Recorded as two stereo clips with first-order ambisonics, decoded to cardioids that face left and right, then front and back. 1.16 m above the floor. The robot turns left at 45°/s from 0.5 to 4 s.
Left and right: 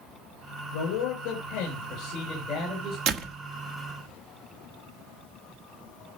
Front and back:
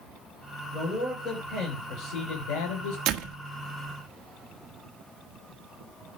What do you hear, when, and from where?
0.7 s a man speaking: 95° left, 4 m; by 3.0 s 5° right, 4 m
3.1 s a door slam: 140° right, 1.4 m; by 3.4 s 155° right, 1.4 m